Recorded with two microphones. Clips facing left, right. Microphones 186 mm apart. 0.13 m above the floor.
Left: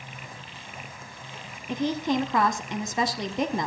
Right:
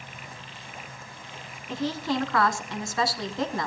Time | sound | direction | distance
1.7 | a woman speaking | 20° left (ahead or behind) | 1.7 m